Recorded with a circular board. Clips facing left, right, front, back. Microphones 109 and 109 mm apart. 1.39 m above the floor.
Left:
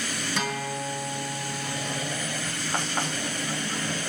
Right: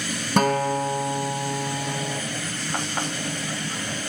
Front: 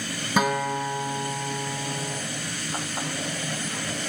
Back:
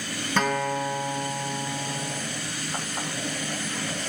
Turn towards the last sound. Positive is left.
turn(degrees=-80)